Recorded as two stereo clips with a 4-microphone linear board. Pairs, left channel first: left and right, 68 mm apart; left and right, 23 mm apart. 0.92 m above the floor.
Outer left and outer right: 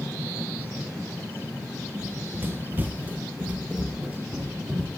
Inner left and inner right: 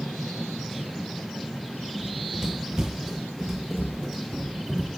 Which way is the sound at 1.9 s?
35° right (ahead or behind).